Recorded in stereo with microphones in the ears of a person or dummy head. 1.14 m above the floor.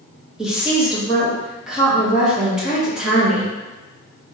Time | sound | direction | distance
0.4 | a woman speaking | 5° right (ahead or behind) | 1.3 m